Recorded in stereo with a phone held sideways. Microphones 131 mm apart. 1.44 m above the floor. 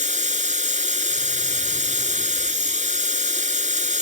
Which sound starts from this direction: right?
A machine running, at 0.0 s.